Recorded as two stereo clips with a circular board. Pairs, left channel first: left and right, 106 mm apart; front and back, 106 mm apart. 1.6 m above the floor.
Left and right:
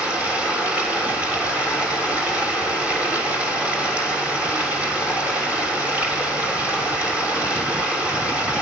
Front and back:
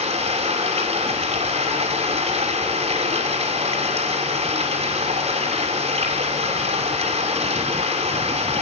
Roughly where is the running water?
Behind.